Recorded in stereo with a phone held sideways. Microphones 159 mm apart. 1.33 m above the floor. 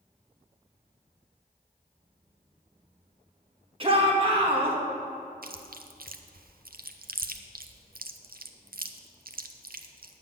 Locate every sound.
3.8 s a shout: 35° right (ahead or behind), 1.9 m
5.4 s chewing: 65° right (ahead or behind), 0.6 m